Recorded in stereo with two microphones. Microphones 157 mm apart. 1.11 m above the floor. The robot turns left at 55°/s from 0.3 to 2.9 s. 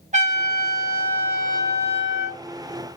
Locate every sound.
0.1 s a trumpet: 55° right, 0.9 m; by 2.4 s 170° right, 0.9 m